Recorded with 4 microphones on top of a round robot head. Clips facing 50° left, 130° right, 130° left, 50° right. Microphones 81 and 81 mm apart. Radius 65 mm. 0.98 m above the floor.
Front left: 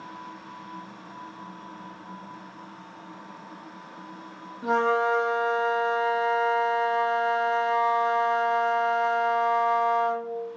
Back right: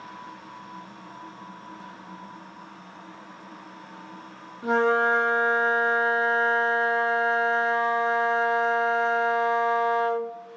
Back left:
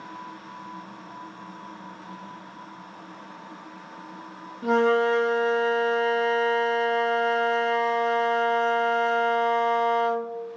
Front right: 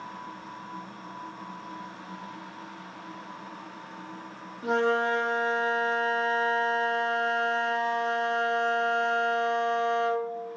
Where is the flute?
115° left, 1.2 m.